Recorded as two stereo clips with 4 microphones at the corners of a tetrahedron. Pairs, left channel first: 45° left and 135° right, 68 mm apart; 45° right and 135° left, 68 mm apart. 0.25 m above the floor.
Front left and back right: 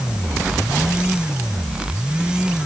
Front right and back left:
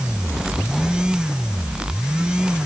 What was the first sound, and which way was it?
Only background noise.